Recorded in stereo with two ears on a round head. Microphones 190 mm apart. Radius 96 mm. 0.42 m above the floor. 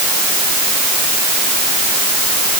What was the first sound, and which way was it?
Only background noise.